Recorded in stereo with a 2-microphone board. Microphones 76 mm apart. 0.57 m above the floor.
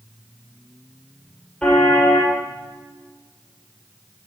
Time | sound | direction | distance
1.6 | a car horn | 10° left (ahead or behind) | 7.5 m